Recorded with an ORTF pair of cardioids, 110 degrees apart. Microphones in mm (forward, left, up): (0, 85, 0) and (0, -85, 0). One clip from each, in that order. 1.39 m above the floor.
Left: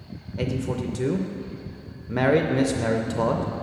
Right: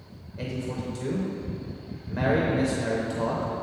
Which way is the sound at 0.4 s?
40° left.